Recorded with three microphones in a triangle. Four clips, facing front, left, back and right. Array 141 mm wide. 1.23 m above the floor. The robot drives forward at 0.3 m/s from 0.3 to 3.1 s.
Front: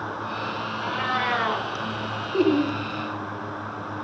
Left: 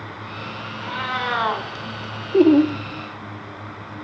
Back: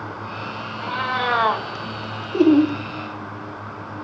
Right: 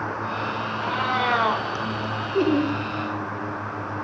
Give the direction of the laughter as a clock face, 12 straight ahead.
9 o'clock.